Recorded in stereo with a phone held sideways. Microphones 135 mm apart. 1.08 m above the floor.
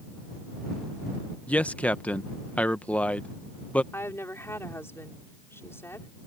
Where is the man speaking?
10° left (ahead or behind).